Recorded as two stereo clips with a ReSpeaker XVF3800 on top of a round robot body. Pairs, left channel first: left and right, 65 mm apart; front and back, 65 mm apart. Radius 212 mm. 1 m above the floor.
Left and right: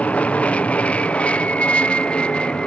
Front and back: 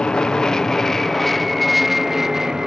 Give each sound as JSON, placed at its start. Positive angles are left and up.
{"t": 0.0, "sound": "an aircraft", "azimuth_deg": 60}